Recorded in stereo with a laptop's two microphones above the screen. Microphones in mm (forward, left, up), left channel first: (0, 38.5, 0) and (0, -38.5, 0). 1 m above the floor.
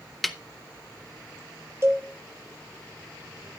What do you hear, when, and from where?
0.2 s a snare drum: centre (ahead or behind), 0.9 m
1.8 s a cowbell: 35° right (ahead or behind), 1.1 m